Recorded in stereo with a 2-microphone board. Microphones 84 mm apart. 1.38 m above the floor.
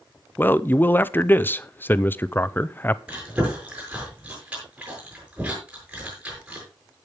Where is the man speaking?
25° left (ahead or behind), 0.6 m.